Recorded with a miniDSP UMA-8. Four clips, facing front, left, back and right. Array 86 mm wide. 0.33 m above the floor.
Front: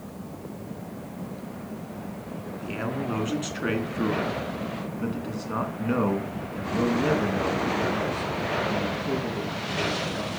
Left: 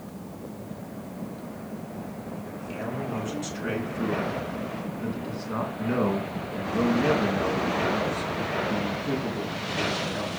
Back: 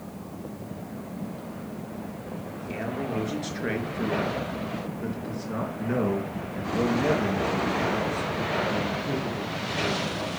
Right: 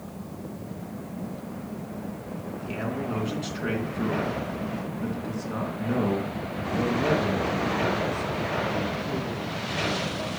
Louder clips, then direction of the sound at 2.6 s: Right 2 dB, front 1 dB; 15° right.